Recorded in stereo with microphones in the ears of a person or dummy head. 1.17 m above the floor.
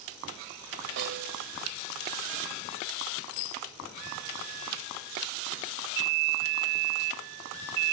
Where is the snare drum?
55° right (ahead or behind).